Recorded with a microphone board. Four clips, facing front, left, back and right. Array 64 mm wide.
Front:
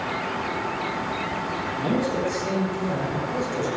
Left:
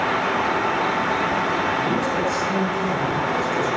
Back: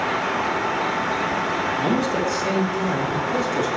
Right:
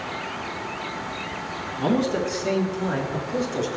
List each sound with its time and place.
1.8 s a man speaking: 120° right, 4 m; by 3.7 s 140° right, 5.5 m